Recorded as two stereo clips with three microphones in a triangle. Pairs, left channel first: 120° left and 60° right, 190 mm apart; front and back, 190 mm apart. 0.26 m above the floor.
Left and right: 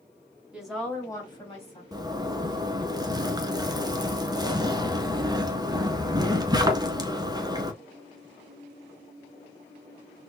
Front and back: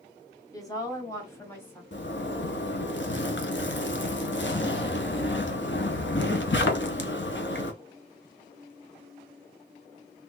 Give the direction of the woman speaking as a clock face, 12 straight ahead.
12 o'clock.